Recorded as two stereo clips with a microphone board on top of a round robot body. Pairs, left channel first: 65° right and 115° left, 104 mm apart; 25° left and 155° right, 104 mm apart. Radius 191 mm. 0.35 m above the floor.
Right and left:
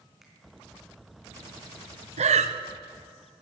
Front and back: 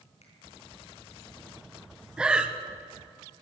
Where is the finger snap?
25° left, 4.5 m.